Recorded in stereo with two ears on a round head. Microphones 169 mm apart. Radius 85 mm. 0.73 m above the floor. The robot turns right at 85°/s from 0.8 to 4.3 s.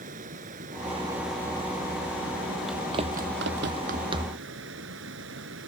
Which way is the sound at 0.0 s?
45° right.